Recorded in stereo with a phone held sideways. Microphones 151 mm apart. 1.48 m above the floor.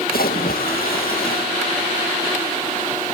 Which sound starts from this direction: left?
A splash, at 0.1 s.